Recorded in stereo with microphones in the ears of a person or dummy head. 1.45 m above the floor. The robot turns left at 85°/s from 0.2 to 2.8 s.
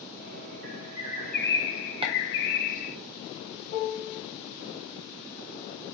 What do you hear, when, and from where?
0.6 s a bird: 125° right, 0.6 m; by 3.0 s 50° left, 0.6 m
2.0 s chopping: 25° right (ahead or behind), 0.5 m; by 2.1 s 20° right (ahead or behind), 0.5 m
3.7 s a piano: 45° left (ahead or behind), 1.6 m